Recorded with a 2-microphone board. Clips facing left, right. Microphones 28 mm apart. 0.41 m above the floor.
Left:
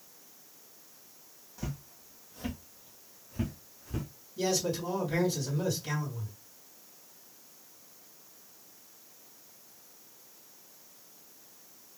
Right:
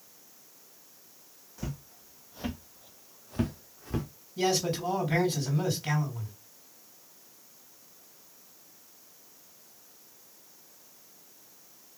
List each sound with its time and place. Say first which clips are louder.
1.6 s footsteps: right 1 dB; centre (ahead or behind), 0.9 m; by 4.1 s 60° right (ahead or behind), 0.9 m
4.4 s a man speaking: right 3 dB; 50° right (ahead or behind), 2.5 m